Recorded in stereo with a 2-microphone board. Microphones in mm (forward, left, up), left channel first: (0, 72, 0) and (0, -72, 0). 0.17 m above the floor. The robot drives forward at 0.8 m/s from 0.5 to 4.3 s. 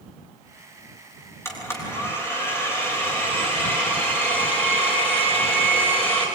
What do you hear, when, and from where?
1.4 s a blender: 15° left (ahead or behind), 5.5 m; by 6.3 s 10° left (ahead or behind), 8 m